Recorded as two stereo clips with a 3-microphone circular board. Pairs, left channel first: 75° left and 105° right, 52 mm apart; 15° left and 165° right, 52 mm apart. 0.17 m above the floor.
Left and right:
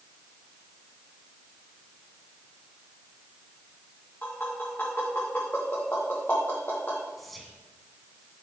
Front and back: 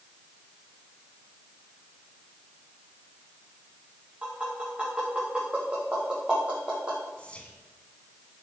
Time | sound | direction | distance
4.2 | tapping | 130° left | 4 m
7.2 | whispering | 10° right | 1.6 m